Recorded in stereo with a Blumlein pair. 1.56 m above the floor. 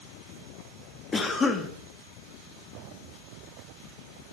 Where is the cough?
10° left, 0.6 m.